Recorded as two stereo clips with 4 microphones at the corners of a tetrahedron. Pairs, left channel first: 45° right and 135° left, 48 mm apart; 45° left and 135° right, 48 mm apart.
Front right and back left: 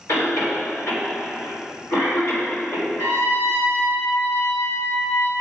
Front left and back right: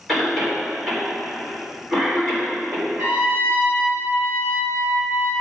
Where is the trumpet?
70° right, 3 m.